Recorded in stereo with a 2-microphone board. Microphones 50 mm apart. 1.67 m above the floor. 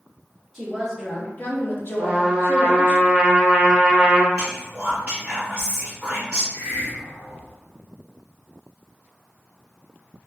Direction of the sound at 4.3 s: 25° right (ahead or behind).